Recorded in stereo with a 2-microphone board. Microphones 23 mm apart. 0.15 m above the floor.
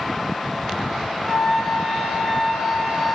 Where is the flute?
5° left (ahead or behind), 3 m.